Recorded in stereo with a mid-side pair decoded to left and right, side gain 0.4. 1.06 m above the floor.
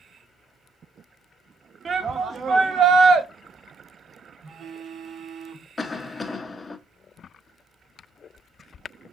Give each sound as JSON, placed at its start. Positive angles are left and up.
{"t": 1.9, "sound": "a shout", "azimuth_deg": -55, "distance_m": 1.4}
{"t": 4.4, "sound": "a phone buzzing", "azimuth_deg": -65, "distance_m": 1.0}
{"t": 5.8, "sound": "a cough", "azimuth_deg": 35, "distance_m": 0.9}